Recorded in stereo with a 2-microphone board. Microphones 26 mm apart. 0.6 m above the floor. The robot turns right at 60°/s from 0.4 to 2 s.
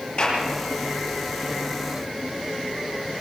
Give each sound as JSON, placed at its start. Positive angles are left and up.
{"t": 0.2, "sound": "a clap", "side_deg": 45, "distance_m": 9.0}